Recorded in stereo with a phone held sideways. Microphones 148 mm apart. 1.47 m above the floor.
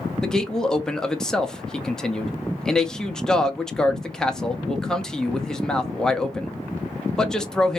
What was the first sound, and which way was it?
A man speaking, 5° left (ahead or behind).